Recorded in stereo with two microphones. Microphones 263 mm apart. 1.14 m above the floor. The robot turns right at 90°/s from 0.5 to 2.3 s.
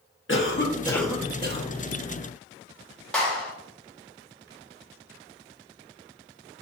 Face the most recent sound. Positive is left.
turn(degrees=5)  # may be behind; listen again after turning